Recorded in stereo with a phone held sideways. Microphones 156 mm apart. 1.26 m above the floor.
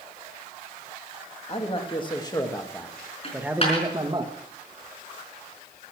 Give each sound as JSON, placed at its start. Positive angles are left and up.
{"t": 1.5, "sound": "a man speaking", "side_deg": 40, "distance_m": 2.0}
{"t": 3.2, "sound": "a dropped coin", "side_deg": 40, "distance_m": 4.5}